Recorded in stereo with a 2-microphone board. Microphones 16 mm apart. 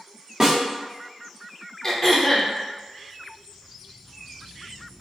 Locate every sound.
0.4 s a snare drum: 20° right (ahead or behind), 1.1 m
1.8 s throat clearing: 30° left (ahead or behind), 0.8 m